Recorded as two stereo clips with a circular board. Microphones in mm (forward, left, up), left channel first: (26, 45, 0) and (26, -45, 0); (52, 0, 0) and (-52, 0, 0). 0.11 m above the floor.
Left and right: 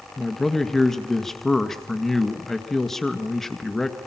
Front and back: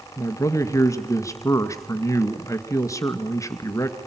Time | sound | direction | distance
0.2 | a man speaking | 10° left | 1.8 m